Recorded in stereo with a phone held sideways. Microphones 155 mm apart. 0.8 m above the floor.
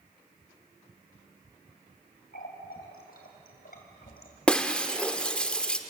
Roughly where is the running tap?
Left.